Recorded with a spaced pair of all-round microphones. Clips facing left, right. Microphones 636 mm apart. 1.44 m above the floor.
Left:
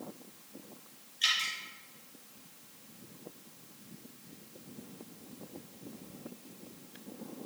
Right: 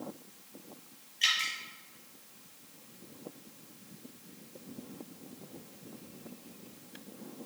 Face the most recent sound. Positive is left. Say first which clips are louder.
# right 1 dB
turn(degrees=-50)  # may be behind; listen again after turning